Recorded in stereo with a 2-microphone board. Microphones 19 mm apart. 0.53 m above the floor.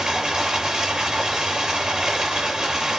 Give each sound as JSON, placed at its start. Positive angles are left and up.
{"t": 0.0, "sound": "running water", "side_deg": -30, "distance_m": 7.5}